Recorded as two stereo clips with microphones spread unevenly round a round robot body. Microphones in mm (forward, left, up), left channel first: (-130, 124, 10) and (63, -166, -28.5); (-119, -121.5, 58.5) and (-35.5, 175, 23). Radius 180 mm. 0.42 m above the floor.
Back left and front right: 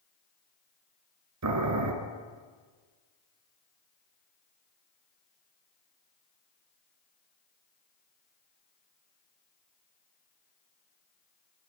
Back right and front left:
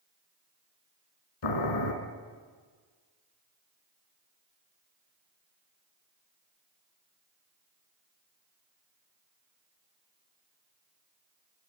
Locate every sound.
1.4 s boiling: 95° right, 4 m